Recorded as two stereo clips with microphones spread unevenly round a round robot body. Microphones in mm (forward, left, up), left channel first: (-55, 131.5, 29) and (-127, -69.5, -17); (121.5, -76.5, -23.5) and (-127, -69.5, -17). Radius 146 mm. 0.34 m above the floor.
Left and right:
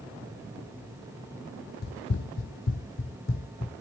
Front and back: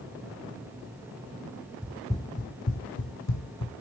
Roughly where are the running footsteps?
Left.